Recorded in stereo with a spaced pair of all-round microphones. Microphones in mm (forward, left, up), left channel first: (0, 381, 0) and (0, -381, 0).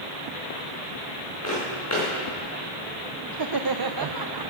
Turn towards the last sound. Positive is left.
turn(degrees=-35)  # may be behind; listen again after turning